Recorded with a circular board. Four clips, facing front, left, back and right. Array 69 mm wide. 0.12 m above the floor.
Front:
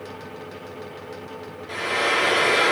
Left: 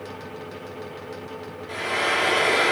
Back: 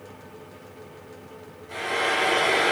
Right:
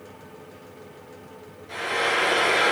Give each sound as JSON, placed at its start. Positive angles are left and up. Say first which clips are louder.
{"t": 1.7, "sound": "frying", "louder": "even, front 2 dB", "azimuth_deg": 30, "distance_m": 4.5}